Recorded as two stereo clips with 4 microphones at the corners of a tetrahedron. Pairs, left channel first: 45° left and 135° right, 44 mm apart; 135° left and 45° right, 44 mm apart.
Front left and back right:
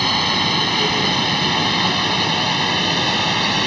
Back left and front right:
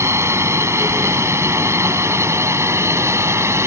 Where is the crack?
I don't hear a crack.